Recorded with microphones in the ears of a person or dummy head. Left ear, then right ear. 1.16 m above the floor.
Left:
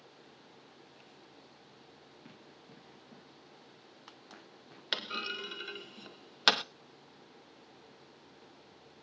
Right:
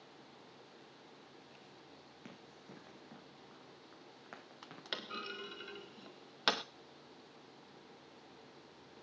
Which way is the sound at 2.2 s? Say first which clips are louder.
Right 2 dB; 30° right (ahead or behind).